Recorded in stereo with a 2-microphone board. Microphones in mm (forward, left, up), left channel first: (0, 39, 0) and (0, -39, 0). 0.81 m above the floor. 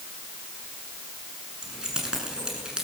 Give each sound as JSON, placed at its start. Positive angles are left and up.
{"t": 1.6, "sound": "keys jangling", "side_deg": -10, "distance_m": 6.0}